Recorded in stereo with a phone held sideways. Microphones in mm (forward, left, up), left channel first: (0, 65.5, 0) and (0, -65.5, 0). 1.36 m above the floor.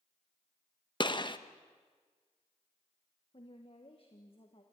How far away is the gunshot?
About 0.8 m.